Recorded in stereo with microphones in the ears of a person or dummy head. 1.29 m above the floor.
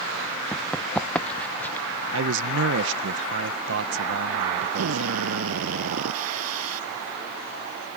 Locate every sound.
0.5 s running footsteps: centre (ahead or behind); by 1.9 s 5° left (ahead or behind)
2.1 s a man speaking: 60° right (ahead or behind)
4.8 s a drill: 85° right